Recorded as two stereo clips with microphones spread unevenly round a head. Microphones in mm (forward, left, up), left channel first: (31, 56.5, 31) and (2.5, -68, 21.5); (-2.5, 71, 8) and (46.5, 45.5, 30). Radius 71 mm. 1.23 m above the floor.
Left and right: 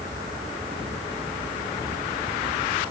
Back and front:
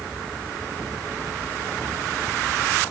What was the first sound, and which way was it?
Only background noise.